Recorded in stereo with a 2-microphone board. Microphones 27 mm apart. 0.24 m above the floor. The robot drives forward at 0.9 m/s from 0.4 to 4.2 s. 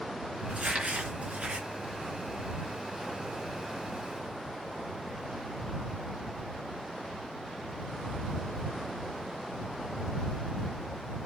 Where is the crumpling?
70° right (ahead or behind), 3 m; by 1.7 s 60° right (ahead or behind), 3.5 m.